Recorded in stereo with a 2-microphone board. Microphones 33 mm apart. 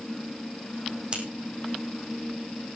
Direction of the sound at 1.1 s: 30° right (ahead or behind).